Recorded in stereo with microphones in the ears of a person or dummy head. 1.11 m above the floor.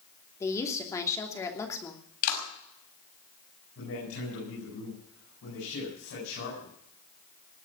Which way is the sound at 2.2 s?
55° left (ahead or behind).